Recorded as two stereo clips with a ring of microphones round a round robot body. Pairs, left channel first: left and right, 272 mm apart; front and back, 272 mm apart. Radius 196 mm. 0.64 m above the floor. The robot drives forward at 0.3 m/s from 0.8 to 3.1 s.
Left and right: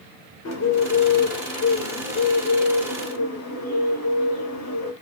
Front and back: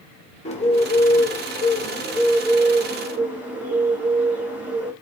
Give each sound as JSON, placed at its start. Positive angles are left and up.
{"t": 0.5, "sound": "a bird", "azimuth_deg": 65, "distance_m": 1.5}